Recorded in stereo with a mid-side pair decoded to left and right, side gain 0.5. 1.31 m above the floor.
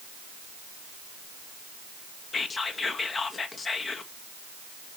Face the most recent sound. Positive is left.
turn(degrees=35)